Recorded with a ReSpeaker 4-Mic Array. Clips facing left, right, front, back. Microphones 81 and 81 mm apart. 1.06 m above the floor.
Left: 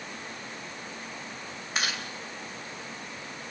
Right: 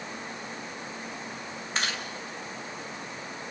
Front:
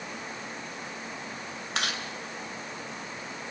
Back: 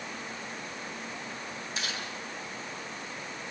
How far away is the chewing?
About 2.5 m.